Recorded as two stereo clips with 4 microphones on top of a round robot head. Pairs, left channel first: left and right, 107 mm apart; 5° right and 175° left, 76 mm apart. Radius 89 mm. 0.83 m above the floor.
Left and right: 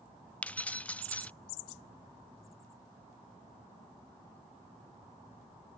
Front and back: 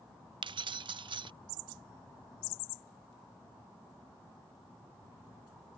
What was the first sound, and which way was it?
Keys jangling, 170° left.